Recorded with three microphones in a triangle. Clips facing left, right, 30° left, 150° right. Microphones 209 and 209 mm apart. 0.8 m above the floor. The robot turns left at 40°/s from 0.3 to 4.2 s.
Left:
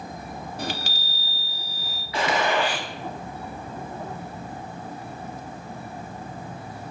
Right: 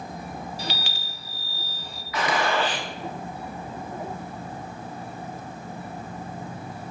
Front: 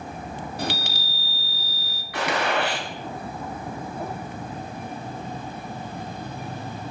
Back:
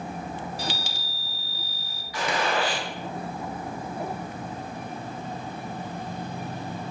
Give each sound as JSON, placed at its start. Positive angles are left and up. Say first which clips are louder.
{"t": 0.6, "sound": "a chime", "louder": "left 3 dB, front 4 dB", "azimuth_deg": 60, "distance_m": 0.6}
{"t": 2.1, "sound": "a gunshot", "louder": "left 1 dB, front 2 dB", "azimuth_deg": 35, "distance_m": 1.1}